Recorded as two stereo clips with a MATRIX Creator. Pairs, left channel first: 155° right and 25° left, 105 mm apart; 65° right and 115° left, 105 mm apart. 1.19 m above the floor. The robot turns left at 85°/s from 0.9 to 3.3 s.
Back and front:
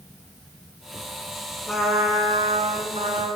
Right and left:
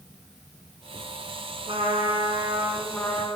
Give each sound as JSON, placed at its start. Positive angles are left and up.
{"t": 1.7, "sound": "a trumpet", "azimuth_deg": 120, "distance_m": 4.0}